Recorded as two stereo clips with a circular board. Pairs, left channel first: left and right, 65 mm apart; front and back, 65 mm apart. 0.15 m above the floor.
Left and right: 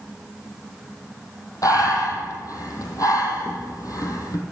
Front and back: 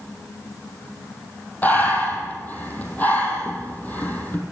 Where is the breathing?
60° left, 2 m.